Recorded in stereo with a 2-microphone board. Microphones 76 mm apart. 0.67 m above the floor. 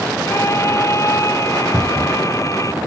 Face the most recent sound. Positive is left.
turn(degrees=-30)  # may be behind; listen again after turning